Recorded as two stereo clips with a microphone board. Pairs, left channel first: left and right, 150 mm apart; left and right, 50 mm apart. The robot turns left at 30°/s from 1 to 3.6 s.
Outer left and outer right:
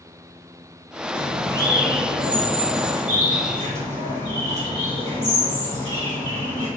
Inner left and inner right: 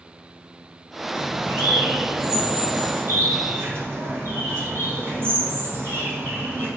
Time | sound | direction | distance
1.1 | a bird | 50° right | 1.7 m